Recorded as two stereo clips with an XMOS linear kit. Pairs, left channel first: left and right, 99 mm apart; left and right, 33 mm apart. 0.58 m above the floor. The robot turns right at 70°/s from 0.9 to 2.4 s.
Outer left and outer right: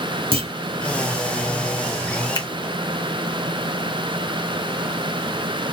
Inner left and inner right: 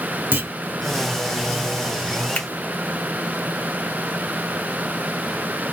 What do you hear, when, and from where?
0.3 s a clunk: 65° right (ahead or behind), 0.9 m
2.4 s a finger snap: 45° left (ahead or behind), 0.8 m; by 2.5 s 40° left (ahead or behind), 0.8 m